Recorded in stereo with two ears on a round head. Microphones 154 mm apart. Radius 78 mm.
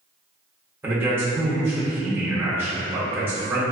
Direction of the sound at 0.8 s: 10° right (ahead or behind).